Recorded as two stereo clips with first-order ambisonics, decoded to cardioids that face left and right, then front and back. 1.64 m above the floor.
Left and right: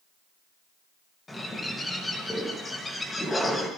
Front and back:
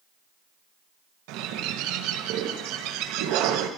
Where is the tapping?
No tapping in this recording.